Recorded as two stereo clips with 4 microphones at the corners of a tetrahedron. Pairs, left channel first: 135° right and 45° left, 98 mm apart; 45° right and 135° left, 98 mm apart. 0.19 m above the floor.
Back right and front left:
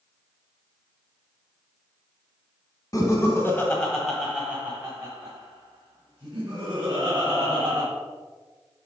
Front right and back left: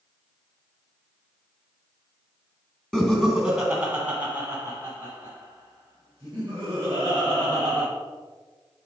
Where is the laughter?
125° right, 1.6 m; by 7.8 s 80° left, 3.5 m.